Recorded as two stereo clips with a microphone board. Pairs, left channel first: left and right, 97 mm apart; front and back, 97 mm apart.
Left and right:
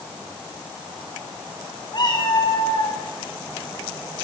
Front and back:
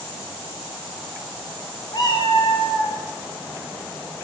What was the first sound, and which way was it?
A cat meowing, 45° left.